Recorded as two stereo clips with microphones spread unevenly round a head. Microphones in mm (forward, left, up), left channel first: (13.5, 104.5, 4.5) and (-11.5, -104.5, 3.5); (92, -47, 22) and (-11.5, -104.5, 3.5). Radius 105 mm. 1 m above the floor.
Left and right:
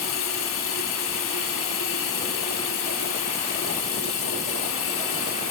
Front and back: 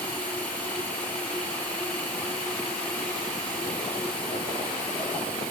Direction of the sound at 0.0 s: 110° left.